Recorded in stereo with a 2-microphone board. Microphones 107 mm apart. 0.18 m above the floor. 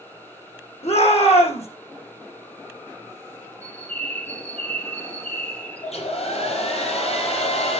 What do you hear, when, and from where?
0.8 s a shout: 80° left, 7 m
3.6 s a bird: 15° left (ahead or behind), 2 m
5.8 s a hair dryer: 75° left (ahead or behind), 5.5 m